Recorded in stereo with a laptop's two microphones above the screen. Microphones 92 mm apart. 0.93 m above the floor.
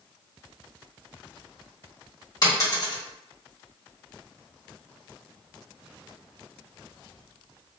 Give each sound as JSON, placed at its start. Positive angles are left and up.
{"t": 2.4, "sound": "a dropped coin", "side_deg": 40, "distance_m": 1.3}